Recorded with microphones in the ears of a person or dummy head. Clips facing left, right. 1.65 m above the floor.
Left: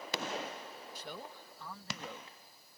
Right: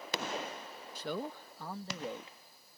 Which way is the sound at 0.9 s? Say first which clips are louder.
Right 11 dB; 65° right (ahead or behind).